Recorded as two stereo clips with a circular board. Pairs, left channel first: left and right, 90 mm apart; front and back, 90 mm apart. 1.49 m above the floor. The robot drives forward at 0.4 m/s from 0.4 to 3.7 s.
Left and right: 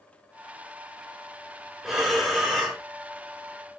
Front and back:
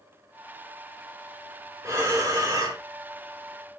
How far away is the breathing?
About 1.3 m.